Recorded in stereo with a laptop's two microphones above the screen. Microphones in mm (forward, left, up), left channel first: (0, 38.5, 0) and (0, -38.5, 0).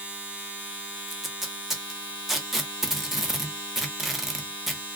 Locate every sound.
0.0 s a machine running: 20° right (ahead or behind), 1.0 m
1.1 s tape being pulled: 5° right (ahead or behind), 0.8 m